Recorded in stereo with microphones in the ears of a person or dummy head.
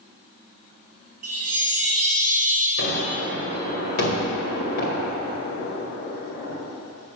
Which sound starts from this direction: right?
A chime, at 1.2 s.